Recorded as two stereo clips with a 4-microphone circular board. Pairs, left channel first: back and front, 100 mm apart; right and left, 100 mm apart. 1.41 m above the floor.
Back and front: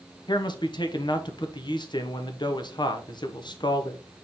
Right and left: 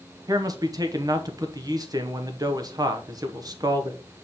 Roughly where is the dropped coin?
I don't hear a dropped coin.